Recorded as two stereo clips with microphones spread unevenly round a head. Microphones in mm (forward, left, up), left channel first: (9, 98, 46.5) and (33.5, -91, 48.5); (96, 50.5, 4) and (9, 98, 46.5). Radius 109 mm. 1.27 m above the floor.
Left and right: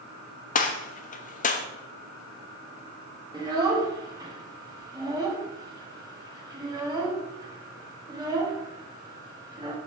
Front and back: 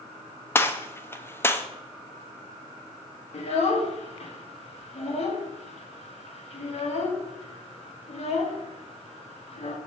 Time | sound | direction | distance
0.6 | a gunshot | 50° left | 0.9 m
3.3 | a child speaking | 10° right | 1.9 m